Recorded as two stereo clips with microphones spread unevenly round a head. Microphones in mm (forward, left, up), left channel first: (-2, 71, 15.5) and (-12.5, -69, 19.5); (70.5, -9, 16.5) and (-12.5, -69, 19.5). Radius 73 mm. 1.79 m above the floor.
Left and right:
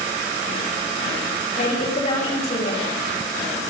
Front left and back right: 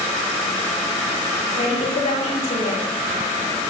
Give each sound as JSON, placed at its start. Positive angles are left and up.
{"t": 1.6, "sound": "a woman speaking", "azimuth_deg": 40, "distance_m": 8.5}